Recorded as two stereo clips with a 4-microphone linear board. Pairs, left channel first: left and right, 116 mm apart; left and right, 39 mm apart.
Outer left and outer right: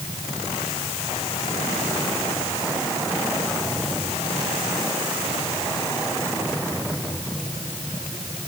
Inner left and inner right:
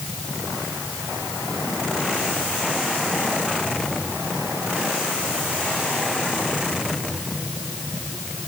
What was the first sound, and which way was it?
Only background noise.